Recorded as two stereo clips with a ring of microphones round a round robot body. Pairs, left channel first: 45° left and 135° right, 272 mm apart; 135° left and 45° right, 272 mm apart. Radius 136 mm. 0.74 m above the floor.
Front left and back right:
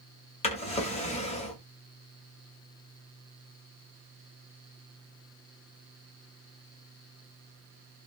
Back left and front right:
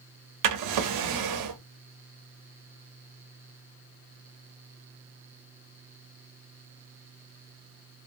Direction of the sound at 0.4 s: 25° right.